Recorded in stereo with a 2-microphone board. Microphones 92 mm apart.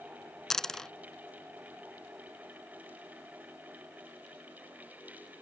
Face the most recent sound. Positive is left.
turn(degrees=5)  # may be behind; listen again after turning